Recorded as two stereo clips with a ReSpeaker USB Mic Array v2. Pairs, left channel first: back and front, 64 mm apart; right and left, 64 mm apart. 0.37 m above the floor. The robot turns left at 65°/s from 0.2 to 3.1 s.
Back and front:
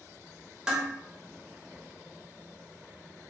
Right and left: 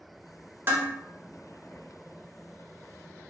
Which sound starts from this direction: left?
Dishes clattering, at 0.7 s.